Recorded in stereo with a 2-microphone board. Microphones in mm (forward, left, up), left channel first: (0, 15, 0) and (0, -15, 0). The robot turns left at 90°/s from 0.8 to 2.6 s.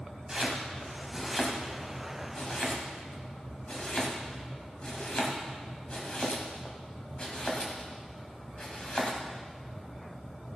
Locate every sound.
0.3 s chopping: 25° right (ahead or behind), 1.9 m; by 9.2 s 35° left (ahead or behind), 1.9 m